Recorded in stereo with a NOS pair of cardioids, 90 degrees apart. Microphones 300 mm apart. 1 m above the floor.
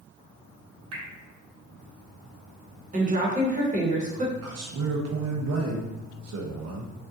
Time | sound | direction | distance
0.9 | dripping | 60° right | 0.8 m
2.9 | a woman speaking | 25° right | 0.7 m
4.4 | a man speaking | 60° right | 0.9 m